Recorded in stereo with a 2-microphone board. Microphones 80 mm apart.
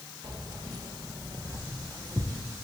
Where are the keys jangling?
65° right (ahead or behind), 5 m; by 2.4 s 55° right (ahead or behind), 4 m.